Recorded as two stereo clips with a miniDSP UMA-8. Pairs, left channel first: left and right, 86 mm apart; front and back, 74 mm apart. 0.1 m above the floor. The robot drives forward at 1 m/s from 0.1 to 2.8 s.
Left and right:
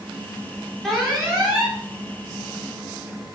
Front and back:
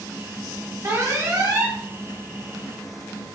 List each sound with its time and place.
0.8 s an alarm: 175° left, 1.4 m; by 1.8 s straight behind, 2 m